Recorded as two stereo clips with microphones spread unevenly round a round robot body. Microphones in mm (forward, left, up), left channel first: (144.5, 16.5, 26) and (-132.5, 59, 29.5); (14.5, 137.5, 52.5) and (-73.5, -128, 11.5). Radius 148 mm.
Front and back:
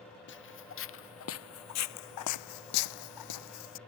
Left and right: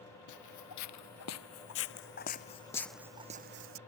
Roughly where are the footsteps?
Ahead left.